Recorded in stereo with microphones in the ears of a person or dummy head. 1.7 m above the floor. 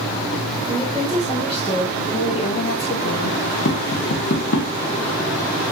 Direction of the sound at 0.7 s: 5° left (ahead or behind).